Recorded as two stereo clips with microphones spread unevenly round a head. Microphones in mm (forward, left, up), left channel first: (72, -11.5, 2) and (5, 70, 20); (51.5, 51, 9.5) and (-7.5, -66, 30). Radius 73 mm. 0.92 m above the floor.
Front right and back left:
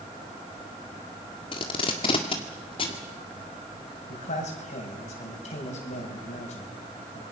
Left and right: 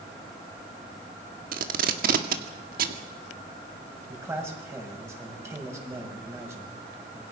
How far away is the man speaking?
About 6 m.